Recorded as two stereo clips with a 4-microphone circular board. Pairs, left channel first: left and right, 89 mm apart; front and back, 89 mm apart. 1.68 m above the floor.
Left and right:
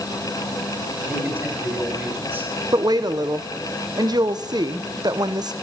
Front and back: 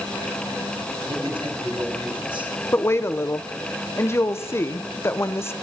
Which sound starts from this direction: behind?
A man speaking, at 1.1 s.